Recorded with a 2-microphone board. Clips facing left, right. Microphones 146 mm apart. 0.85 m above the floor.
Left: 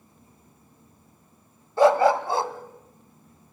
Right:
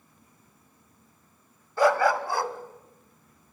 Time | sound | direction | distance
1.8 | a dog barking | 25° left (ahead or behind) | 1.1 m